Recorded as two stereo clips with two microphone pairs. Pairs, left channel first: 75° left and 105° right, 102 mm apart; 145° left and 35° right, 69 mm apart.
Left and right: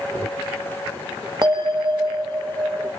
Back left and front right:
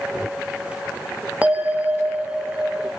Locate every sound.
1.4 s a bell: 90° right, 0.6 m